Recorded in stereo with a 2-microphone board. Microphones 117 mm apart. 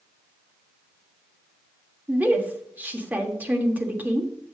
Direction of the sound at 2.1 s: 15° right (ahead or behind).